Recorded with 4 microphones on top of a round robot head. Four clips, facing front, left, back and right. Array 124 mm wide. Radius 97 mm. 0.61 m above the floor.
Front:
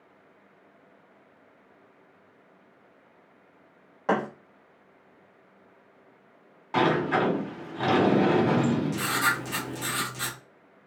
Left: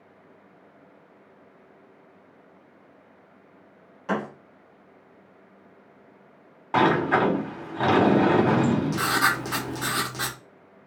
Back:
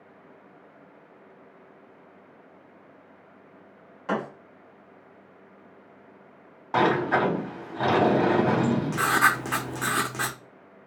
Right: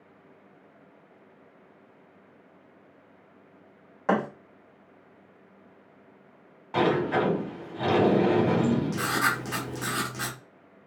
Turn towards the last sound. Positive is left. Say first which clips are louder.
# left 3 dB, back 5 dB
turn(degrees=155)